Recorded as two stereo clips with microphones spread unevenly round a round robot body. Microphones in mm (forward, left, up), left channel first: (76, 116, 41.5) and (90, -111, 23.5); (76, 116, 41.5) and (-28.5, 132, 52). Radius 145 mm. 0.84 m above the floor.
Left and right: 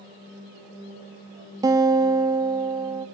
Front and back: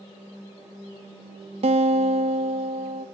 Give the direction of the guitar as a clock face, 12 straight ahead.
5 o'clock.